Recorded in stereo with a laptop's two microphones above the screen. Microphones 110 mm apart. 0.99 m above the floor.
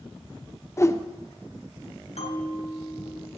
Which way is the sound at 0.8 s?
25° left (ahead or behind).